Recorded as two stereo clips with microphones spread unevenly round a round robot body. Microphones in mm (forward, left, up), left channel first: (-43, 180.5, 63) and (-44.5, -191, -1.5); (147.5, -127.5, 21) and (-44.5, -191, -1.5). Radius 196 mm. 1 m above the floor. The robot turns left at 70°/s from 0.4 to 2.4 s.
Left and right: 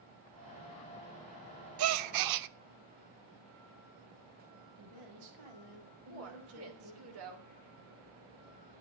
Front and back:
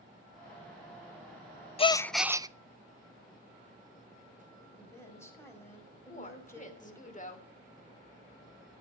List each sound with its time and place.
1.8 s a gasp: 50° right, 0.6 m; by 2.5 s 90° right, 0.6 m
4.8 s a woman speaking: 60° right, 5 m
6.1 s a woman speaking: 35° right, 3 m